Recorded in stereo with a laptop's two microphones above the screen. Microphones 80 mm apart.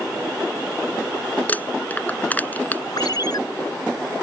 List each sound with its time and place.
1.5 s crumpling: 20° left (ahead or behind)
3.0 s a ringtone: 55° left (ahead or behind)